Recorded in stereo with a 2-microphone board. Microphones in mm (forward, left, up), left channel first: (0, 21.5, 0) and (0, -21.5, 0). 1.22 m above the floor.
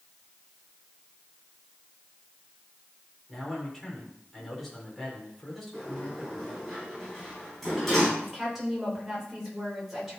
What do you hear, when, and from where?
3.3 s a man speaking: centre (ahead or behind), 3.5 m
5.7 s a sliding door: centre (ahead or behind), 5.5 m
8.2 s a woman speaking: 5° right (ahead or behind), 5 m